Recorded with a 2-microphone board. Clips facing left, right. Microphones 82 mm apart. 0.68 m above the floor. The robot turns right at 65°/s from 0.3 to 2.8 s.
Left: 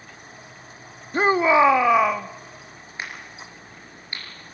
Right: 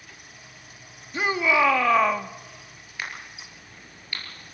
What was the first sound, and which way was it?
A shout, 115° left.